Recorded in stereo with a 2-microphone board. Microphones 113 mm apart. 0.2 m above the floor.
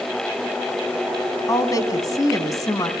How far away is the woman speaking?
About 1.9 m.